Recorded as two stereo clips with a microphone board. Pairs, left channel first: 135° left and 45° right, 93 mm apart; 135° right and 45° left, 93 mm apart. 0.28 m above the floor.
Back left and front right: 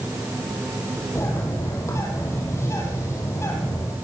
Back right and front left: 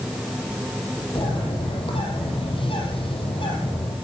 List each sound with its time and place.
1.1 s a bird: 160° right, 6 m